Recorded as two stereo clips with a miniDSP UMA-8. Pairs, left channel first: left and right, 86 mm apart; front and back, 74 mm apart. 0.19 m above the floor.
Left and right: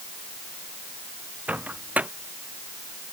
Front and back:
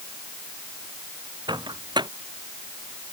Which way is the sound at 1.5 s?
165° right.